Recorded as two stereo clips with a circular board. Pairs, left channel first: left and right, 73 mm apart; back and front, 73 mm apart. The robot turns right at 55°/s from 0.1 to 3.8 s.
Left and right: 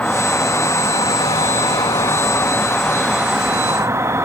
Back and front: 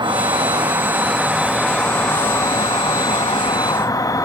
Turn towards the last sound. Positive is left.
turn(degrees=-145)